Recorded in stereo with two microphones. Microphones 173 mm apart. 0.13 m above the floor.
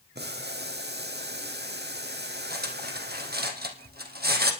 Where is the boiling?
75° right (ahead or behind), 1.1 m.